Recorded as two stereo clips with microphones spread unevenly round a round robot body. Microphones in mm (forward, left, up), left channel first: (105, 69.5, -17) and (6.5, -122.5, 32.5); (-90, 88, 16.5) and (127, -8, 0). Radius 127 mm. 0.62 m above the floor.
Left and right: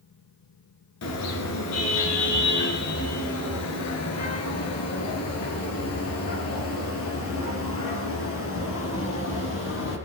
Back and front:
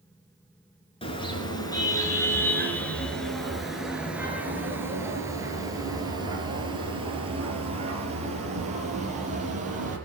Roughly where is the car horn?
Left.